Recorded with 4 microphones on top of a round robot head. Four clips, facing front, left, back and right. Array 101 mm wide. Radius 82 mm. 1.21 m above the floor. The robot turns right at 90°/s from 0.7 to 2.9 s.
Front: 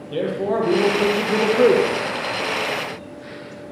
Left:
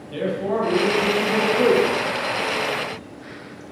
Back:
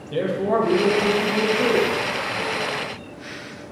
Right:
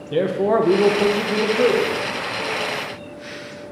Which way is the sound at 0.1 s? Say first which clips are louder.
Right 5 dB, back 1 dB; 80° right.